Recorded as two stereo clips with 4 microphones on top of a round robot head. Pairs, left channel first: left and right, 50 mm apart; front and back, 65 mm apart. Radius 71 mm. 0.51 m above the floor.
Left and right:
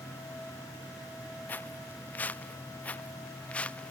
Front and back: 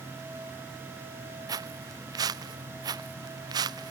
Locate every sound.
1.5 s footsteps: 155° left; by 3.9 s 165° left